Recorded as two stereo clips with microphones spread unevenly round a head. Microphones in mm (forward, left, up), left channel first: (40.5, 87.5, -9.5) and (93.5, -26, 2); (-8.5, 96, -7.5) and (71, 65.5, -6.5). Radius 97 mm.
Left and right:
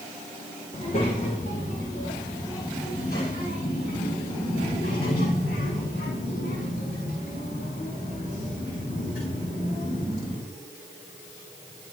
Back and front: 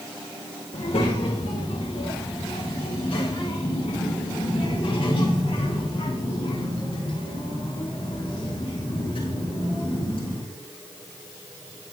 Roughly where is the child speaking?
Behind.